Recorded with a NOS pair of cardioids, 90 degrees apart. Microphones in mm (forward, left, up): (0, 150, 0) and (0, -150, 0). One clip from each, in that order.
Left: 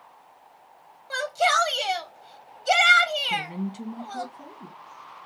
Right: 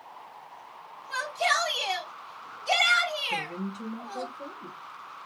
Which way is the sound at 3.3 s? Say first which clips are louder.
Left 3 dB; 65° left.